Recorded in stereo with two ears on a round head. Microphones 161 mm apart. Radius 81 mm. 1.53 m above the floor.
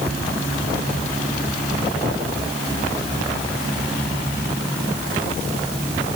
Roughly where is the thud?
No thud in this recording.